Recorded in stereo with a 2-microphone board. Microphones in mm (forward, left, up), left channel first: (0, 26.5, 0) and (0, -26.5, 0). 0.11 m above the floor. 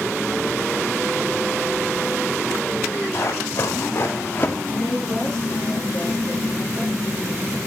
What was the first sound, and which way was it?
Running footsteps, 55° left (ahead or behind).